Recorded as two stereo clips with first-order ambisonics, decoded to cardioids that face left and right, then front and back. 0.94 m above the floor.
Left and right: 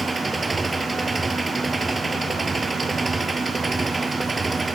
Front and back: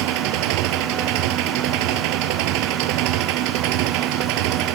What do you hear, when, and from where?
0.0 s an engine running: 170° right